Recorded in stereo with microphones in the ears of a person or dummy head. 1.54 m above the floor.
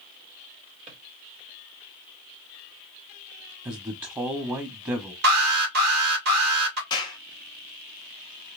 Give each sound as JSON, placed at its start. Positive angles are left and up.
{"t": 0.9, "sound": "a drawer", "side_deg": -45, "distance_m": 2.0}
{"t": 3.6, "sound": "a man speaking", "side_deg": -20, "distance_m": 0.7}
{"t": 5.2, "sound": "an alarm", "side_deg": -60, "distance_m": 2.5}
{"t": 6.9, "sound": "a clap", "side_deg": 25, "distance_m": 1.5}